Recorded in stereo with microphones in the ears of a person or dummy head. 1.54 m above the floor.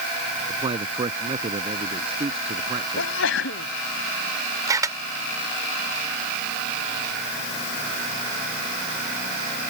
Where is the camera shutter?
20° right (ahead or behind).